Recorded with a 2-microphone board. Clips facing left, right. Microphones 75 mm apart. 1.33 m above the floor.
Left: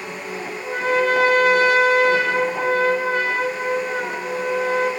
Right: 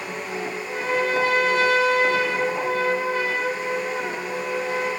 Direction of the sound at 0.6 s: 65° left (ahead or behind).